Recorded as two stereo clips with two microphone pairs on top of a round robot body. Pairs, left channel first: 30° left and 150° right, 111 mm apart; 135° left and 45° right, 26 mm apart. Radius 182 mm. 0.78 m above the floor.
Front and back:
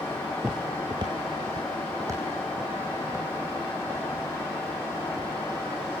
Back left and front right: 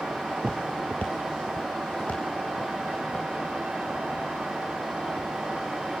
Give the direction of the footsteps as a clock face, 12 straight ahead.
2 o'clock.